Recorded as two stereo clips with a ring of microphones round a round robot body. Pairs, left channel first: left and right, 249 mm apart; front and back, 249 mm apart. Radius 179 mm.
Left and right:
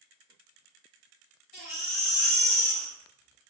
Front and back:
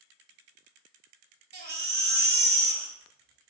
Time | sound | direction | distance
1.5 | a baby crying | 125° left | 0.8 m